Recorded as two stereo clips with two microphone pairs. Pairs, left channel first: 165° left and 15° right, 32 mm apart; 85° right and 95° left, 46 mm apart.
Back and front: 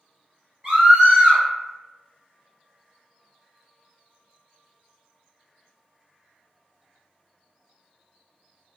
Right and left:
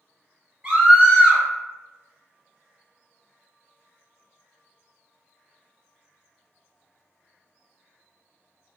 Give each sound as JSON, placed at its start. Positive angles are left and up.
{"t": 0.6, "sound": "a scream", "azimuth_deg": 35, "distance_m": 1.9}